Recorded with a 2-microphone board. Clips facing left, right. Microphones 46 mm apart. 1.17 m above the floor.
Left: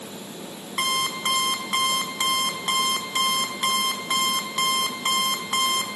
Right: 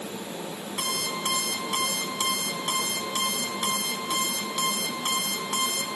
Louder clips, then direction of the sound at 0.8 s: Left 6 dB; 70° left (ahead or behind).